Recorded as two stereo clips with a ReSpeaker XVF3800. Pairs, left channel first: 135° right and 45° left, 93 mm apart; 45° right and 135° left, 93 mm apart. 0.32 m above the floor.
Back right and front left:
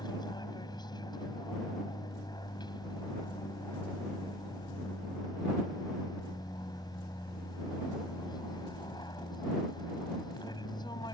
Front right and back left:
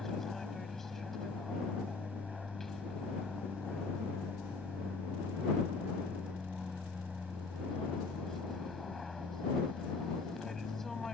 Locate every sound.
0.0 s an aircraft: 130° right